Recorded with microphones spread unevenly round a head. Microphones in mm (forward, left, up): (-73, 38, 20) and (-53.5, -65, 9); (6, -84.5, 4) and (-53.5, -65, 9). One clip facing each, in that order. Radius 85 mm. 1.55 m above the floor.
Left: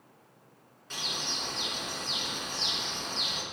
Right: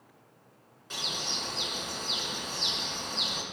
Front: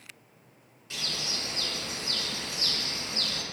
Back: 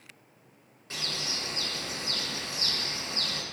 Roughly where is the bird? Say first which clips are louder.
Right 1 dB, even; behind.